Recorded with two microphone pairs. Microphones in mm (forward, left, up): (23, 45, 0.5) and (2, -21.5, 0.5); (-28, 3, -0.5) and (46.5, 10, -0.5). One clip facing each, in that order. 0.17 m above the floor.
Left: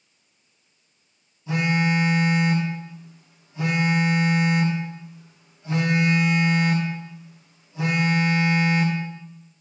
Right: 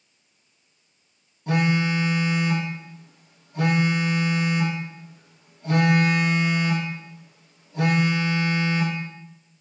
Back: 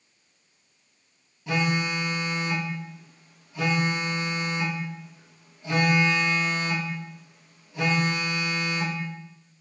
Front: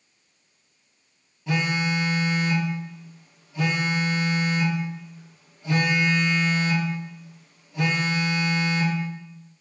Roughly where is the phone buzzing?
Right.